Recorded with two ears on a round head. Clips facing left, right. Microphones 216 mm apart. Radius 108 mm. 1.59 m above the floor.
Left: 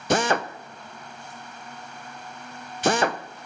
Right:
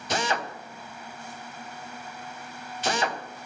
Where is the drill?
45° left (ahead or behind), 0.7 m.